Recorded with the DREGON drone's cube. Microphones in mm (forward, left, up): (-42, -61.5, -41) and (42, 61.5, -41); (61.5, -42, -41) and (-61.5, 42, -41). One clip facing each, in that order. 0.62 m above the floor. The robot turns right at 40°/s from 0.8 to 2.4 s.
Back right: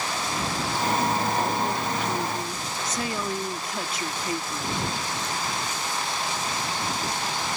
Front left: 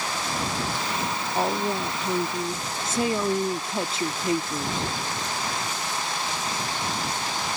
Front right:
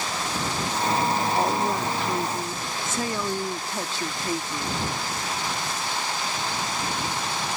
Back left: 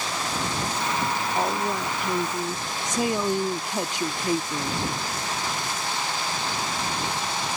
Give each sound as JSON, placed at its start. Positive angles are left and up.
{"t": 1.4, "sound": "a woman speaking", "azimuth_deg": 45}